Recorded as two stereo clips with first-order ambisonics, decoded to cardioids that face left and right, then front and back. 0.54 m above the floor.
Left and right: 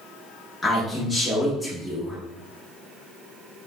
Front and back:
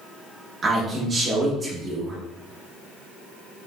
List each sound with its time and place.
0.6 s a man speaking: 145° left, 0.6 m